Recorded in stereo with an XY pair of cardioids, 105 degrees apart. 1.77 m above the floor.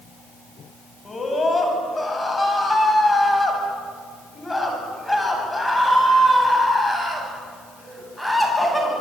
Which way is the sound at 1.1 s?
30° left.